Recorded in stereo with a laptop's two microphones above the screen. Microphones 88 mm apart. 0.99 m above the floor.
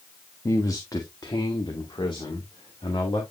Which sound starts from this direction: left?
A man speaking, at 0.5 s.